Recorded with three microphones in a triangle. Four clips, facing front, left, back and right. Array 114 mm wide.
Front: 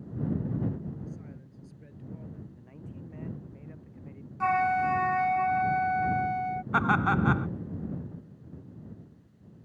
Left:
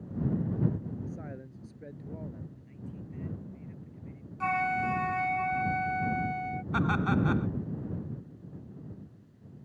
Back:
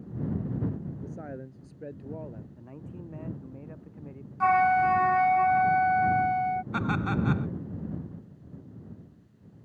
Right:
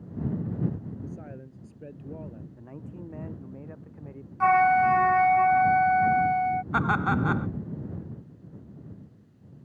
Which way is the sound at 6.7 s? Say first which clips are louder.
Left 2 dB, front 4 dB; 40° right.